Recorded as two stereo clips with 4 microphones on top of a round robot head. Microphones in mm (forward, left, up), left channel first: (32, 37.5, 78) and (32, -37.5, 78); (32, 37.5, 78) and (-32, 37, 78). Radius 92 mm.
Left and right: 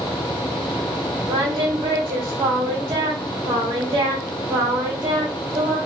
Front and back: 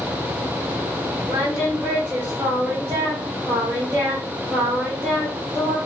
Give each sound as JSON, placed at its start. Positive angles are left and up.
{"t": 1.3, "sound": "singing", "azimuth_deg": -120, "distance_m": 0.9}